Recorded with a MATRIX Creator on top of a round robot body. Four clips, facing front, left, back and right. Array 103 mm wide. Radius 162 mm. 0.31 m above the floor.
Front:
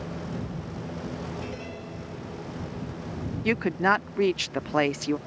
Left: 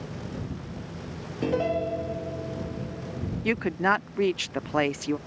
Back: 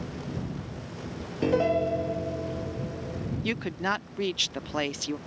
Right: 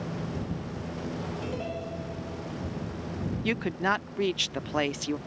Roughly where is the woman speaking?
Ahead left.